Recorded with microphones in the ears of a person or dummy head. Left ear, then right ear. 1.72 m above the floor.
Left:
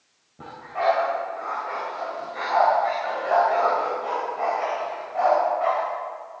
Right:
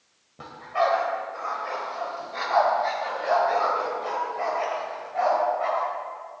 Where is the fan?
I don't hear a fan.